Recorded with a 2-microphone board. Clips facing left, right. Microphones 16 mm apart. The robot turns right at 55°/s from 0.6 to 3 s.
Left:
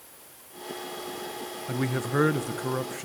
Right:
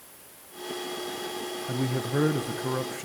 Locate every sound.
1.7 s a man speaking: 90° left, 1.0 m; by 3.1 s 165° left, 1.0 m